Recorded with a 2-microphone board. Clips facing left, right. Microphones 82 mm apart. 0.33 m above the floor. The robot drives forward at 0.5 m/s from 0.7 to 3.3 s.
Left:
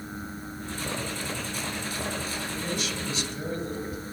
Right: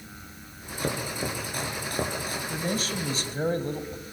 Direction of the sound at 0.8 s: 55° right (ahead or behind).